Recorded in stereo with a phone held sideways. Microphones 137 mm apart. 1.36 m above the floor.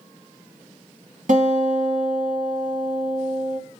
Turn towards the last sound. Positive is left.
turn(degrees=-75)  # may be behind; listen again after turning